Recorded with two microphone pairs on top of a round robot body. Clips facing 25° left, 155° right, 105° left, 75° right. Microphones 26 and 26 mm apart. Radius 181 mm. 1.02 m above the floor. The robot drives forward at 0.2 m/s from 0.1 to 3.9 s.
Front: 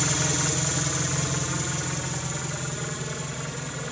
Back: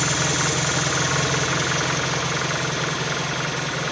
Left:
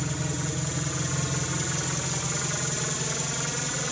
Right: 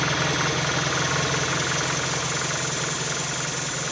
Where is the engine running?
100° right, 0.8 m; by 3.9 s 145° right, 1.2 m.